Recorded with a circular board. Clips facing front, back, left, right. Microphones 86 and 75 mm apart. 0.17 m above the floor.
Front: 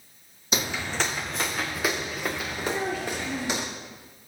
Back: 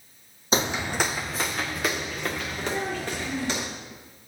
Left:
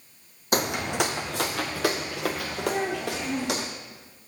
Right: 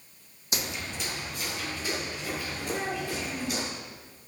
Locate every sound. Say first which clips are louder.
0.5 s footsteps: back 4 dB, left 10 dB; 125° left, 0.5 m; by 3.7 s 75° left, 2.5 m
2.7 s a child speaking: front 1 dB, left 4 dB; 55° left, 2 m